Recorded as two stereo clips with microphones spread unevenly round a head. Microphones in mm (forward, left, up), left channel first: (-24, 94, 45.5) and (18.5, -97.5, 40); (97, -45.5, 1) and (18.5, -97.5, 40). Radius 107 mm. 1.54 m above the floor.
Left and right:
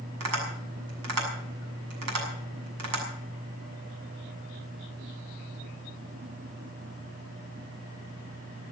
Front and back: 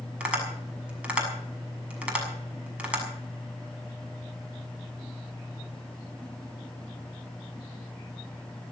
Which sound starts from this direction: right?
Tapping, at 0.2 s.